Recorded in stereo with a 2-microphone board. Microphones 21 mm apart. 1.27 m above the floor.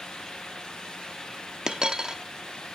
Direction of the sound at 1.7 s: 35° right (ahead or behind).